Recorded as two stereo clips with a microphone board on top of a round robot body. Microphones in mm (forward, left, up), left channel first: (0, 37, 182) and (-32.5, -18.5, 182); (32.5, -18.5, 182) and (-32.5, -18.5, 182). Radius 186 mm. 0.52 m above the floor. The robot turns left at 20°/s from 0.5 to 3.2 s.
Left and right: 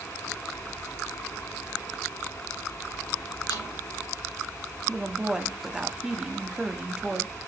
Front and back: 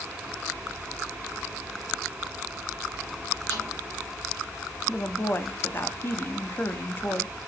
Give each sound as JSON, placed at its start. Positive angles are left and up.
{"t": 3.5, "sound": "a snare drum", "azimuth_deg": 50, "distance_m": 4.5}
{"t": 4.9, "sound": "a woman speaking", "azimuth_deg": -45, "distance_m": 1.3}